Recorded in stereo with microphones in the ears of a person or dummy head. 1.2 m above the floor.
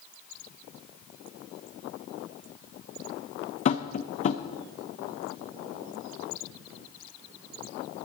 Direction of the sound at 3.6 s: 30° left (ahead or behind).